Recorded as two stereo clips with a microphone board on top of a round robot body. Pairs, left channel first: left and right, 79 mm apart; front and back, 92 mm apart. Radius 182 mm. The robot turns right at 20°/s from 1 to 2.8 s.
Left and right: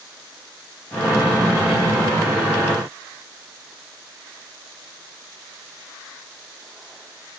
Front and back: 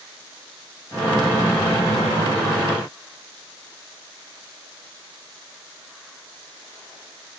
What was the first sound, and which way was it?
Only background noise.